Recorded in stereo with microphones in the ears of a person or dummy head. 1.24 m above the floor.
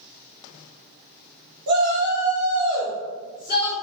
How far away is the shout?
About 1.1 m.